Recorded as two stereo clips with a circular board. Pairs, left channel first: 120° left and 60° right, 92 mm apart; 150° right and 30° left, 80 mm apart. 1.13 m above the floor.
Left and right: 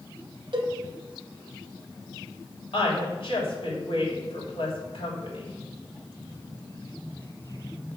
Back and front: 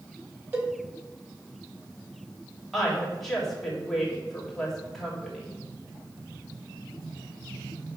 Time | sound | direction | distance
0.5 | a cowbell | 35° right | 1.1 m
2.7 | a woman speaking | 125° left | 3 m